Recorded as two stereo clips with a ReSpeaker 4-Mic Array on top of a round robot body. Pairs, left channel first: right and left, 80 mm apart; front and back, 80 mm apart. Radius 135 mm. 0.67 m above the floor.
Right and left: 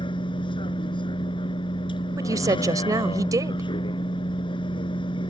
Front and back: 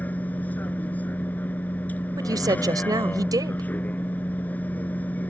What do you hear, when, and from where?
0.0 s a vehicle: 70° right
2.2 s a woman speaking: 135° left